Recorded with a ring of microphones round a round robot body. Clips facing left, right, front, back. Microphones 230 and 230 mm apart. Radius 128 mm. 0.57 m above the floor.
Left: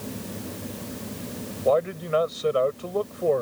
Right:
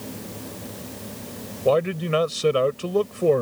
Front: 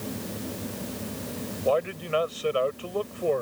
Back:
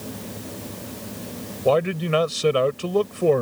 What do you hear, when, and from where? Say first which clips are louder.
1.6 s a man speaking: right 2 dB, back 6 dB; 145° right